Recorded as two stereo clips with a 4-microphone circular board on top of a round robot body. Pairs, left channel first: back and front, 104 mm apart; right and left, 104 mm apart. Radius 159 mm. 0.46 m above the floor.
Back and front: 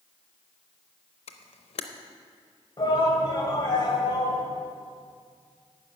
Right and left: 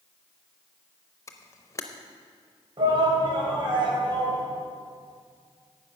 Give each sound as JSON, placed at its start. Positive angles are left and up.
{"t": 1.3, "sound": "a camera shutter", "azimuth_deg": -155, "distance_m": 0.6}
{"t": 2.8, "sound": "a shout", "azimuth_deg": 135, "distance_m": 3.5}